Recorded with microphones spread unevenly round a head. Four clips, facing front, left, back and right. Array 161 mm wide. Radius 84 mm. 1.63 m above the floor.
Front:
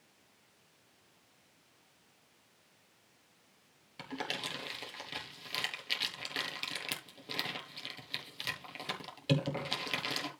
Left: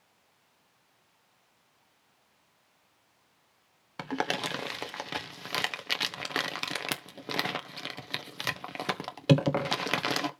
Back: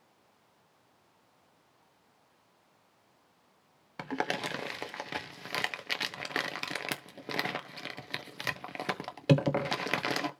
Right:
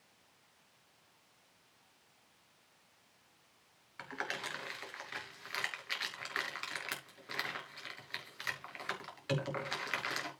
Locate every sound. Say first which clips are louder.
4.0 s crumpling: left 10 dB, back 7 dB; 120° left, 1.2 m